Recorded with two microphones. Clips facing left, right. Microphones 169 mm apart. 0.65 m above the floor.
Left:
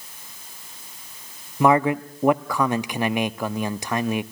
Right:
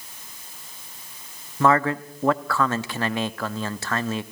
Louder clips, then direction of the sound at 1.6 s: Left 2 dB; 15° left (ahead or behind).